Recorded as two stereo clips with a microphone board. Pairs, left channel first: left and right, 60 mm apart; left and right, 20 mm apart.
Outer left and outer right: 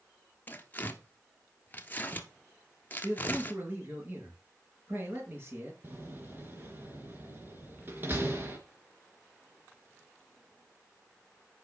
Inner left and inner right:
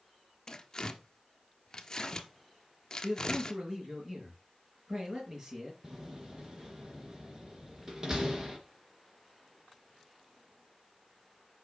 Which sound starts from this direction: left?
Tearing paper, at 0.5 s.